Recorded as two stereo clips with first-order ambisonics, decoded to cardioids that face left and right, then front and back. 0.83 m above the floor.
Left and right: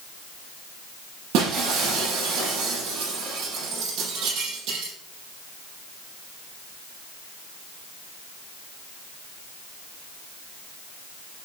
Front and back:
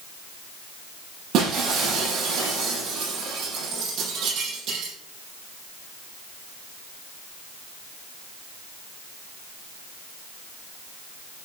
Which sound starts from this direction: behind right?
Breaking glass, at 1.3 s.